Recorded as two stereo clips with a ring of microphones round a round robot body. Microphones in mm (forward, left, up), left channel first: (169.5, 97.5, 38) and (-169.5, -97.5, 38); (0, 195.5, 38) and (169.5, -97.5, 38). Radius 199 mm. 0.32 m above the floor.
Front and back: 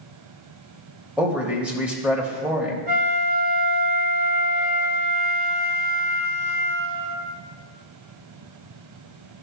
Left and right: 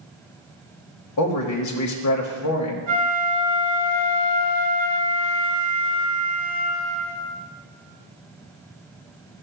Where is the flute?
85° right, 3.5 m.